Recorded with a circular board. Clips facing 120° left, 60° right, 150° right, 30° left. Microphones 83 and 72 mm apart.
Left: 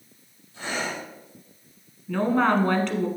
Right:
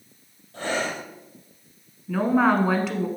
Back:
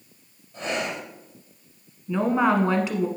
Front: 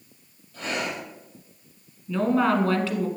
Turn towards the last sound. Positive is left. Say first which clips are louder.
# right 1 dB, back 1 dB
turn(degrees=-130)